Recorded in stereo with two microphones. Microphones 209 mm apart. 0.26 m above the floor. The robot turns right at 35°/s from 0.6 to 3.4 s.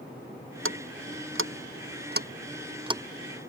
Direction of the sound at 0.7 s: 75° right (ahead or behind).